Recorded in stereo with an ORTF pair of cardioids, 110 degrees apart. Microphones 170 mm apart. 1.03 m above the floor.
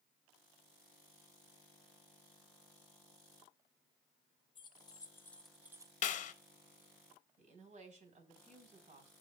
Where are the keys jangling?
30° left, 1.1 m; by 5.9 s 25° right, 0.5 m.